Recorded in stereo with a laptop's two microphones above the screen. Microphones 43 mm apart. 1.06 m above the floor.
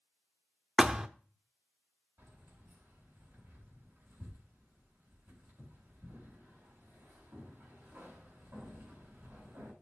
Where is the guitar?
No guitar in this recording.